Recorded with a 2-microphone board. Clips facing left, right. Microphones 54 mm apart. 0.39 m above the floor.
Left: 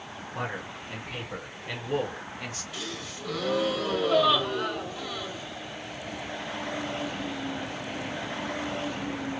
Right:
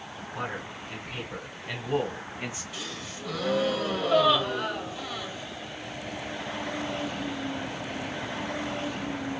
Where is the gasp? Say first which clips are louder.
Left 1 dB; centre (ahead or behind), 1.2 m.